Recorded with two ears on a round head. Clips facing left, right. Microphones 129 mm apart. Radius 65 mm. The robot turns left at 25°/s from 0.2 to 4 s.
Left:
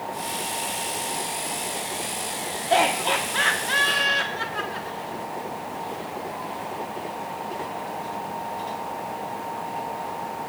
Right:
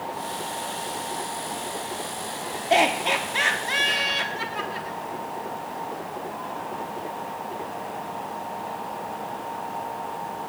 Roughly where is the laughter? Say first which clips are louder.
Even; right.